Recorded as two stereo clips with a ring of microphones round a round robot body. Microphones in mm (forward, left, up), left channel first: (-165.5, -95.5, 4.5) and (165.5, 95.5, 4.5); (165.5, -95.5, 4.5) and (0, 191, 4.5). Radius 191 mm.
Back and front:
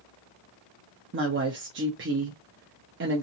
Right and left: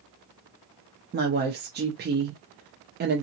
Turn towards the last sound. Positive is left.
turn(degrees=75)